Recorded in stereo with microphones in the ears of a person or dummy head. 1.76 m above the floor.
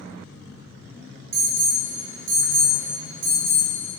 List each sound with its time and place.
1.3 s an alarm: 55° right (ahead or behind), 1.0 m